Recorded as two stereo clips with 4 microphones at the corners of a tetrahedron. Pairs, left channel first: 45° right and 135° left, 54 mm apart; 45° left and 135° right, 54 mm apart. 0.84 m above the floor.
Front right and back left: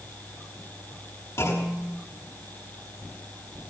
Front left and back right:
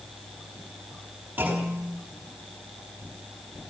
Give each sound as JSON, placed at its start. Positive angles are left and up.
{"t": 1.4, "sound": "a clunk", "azimuth_deg": -75, "distance_m": 7.0}